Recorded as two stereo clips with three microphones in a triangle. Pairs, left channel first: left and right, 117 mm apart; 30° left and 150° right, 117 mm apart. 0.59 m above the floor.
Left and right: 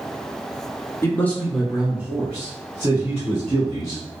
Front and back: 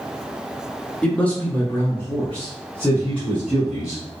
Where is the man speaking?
95° left, 0.7 m; by 4.0 s 50° right, 1.7 m.